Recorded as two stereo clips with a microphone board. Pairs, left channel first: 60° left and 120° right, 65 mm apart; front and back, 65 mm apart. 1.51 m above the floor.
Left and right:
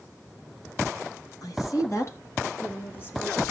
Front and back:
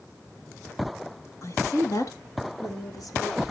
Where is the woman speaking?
35° left, 3 m; by 3.4 s 5° right, 4 m.